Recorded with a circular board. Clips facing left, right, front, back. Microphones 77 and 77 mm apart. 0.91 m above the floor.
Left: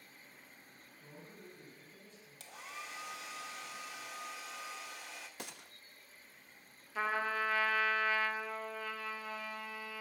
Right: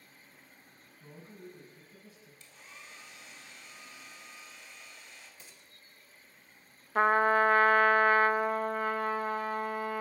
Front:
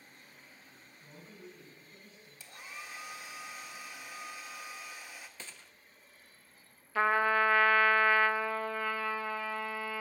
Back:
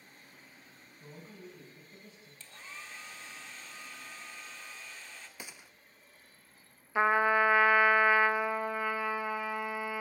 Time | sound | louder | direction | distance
1.0 | a man speaking | right 5 dB, back 3 dB | 165° right | 6.5 m
2.4 | a hair dryer | left 7 dB, front 1 dB | 80° left | 1.7 m
5.4 | a gunshot | left 8 dB, back 2 dB | 105° left | 0.7 m
7.0 | a trumpet | right 11 dB, back 2 dB | 110° right | 0.7 m